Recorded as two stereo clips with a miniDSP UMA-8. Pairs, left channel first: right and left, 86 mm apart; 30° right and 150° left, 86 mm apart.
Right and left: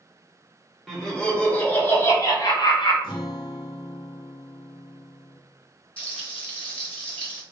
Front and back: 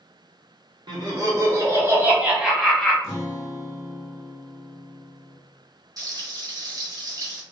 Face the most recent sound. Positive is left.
turn(degrees=-165)